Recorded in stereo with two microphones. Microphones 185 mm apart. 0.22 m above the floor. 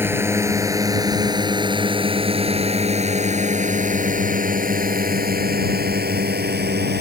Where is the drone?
15° right (ahead or behind); by 7.0 s 65° right (ahead or behind).